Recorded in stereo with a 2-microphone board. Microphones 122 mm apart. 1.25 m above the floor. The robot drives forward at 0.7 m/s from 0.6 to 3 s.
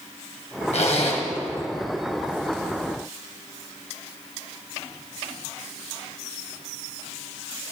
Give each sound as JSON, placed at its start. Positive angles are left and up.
{"t": 0.7, "sound": "a zipper", "side_deg": 60, "distance_m": 1.1}